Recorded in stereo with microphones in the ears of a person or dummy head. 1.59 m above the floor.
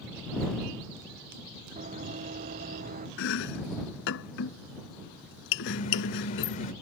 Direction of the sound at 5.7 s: 45° left (ahead or behind).